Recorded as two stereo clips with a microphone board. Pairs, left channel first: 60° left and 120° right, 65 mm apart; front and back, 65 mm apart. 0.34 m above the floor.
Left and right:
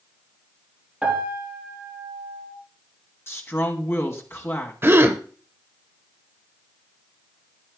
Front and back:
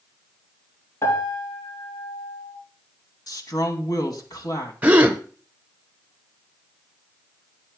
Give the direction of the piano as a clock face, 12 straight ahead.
1 o'clock.